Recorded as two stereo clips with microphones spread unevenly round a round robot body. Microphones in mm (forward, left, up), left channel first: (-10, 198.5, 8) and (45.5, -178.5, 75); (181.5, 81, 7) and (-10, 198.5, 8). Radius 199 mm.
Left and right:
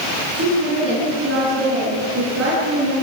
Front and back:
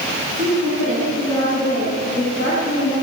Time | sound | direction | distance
0.3 | a woman speaking | 145° right | 9.5 m